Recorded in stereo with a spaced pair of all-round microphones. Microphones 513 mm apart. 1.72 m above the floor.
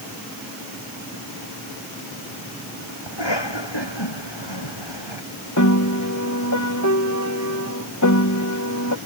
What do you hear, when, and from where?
3.1 s a cough: 55° left (ahead or behind)
5.6 s a piano: 35° left (ahead or behind)